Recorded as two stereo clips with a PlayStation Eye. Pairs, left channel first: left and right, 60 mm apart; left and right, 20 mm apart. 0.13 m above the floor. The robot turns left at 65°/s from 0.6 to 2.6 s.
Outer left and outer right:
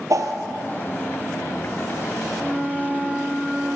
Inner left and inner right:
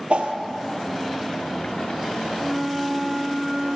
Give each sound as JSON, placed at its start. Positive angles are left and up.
{"t": 0.1, "sound": "a whoosh", "side_deg": -65, "distance_m": 1.5}
{"t": 2.4, "sound": "a flute", "side_deg": -55, "distance_m": 6.5}